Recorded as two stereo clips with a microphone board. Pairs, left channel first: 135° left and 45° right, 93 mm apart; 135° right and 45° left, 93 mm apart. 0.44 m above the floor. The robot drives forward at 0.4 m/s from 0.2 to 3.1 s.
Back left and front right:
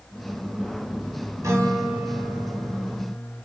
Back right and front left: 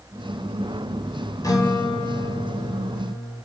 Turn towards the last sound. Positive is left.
turn(degrees=-120)